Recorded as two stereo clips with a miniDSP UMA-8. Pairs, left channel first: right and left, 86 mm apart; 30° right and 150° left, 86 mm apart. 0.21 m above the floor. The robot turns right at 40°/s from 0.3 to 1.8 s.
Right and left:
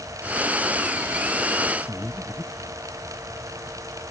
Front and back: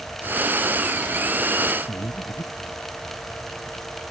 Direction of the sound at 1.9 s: 10° left.